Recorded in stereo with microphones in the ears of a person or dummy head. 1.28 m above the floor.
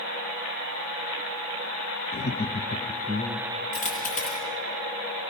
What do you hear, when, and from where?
2.1 s laughter: 40° left (ahead or behind), 0.6 m; by 3.6 s 20° right (ahead or behind), 0.8 m
3.7 s a dropped coin: 40° left (ahead or behind), 6.5 m